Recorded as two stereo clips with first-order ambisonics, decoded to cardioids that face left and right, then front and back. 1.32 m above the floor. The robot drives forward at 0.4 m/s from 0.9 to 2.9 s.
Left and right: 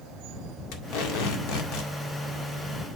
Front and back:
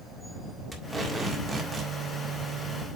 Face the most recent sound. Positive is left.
turn(degrees=125)